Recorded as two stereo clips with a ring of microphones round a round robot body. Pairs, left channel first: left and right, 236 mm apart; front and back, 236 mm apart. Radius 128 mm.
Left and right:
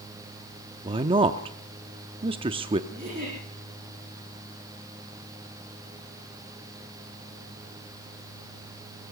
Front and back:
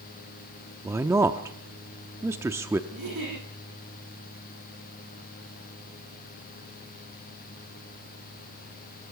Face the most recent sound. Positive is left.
turn(degrees=-160)